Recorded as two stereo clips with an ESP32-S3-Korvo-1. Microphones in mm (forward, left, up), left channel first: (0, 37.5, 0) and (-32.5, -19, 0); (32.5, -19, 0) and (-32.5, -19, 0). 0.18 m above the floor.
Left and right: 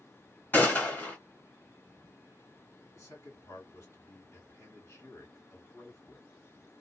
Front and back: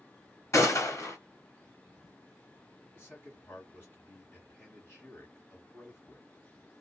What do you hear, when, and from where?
0.5 s a gunshot: 10° left, 1.7 m
2.9 s a man speaking: 40° left, 2.5 m